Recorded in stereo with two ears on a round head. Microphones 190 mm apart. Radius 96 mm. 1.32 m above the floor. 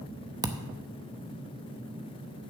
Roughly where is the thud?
Centre.